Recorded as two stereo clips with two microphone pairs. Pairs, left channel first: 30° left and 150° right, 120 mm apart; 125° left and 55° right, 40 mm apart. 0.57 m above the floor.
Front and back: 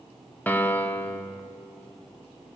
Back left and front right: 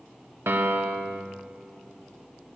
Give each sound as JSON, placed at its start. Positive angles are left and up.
{"t": 0.5, "sound": "a piano", "azimuth_deg": -45, "distance_m": 0.6}